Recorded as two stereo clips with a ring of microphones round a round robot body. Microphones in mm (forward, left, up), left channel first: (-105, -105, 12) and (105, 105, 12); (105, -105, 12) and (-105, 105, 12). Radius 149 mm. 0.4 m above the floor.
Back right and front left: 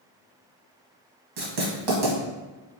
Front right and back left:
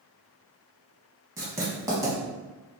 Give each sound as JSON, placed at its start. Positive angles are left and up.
{"t": 1.4, "sound": "writing", "azimuth_deg": 55, "distance_m": 1.1}